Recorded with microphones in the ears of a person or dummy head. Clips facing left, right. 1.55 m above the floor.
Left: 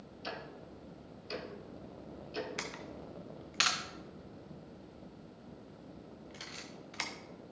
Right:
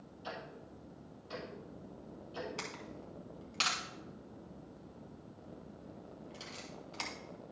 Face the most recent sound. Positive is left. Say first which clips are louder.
# left 2 dB
turn(degrees=25)  # may be behind; listen again after turning